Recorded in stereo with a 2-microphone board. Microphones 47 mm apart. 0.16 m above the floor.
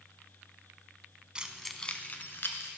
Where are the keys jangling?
20° right (ahead or behind), 0.8 m; by 2.7 s 55° left (ahead or behind), 1.4 m.